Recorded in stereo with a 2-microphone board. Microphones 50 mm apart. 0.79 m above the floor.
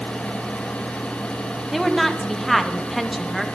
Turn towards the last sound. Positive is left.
turn(degrees=5)  # may be behind; listen again after turning